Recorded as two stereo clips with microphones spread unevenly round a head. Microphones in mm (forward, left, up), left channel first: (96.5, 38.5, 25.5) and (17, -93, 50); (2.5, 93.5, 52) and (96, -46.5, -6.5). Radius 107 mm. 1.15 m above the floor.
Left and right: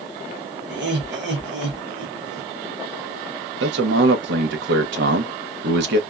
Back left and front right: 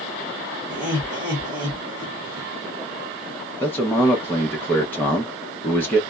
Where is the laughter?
120° right, 1.6 m.